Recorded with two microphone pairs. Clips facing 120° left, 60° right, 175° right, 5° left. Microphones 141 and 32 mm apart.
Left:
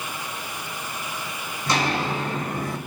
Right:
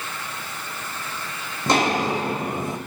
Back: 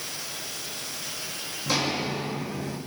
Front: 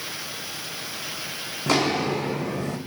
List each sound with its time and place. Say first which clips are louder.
1.7 s footsteps: right 4 dB, front 5 dB; 20° right, 1.1 m; by 2.8 s 10° left, 1.1 m